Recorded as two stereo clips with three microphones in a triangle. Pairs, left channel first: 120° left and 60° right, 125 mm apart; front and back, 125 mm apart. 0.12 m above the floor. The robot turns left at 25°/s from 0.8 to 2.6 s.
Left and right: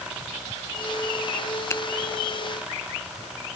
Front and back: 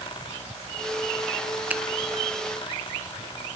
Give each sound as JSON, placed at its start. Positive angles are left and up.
{"t": 1.7, "sound": "a finger snap", "azimuth_deg": 125, "distance_m": 0.9}